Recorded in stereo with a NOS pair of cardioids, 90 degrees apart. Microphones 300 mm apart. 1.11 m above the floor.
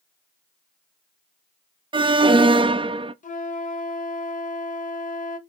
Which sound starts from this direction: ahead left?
A flute, at 3.2 s.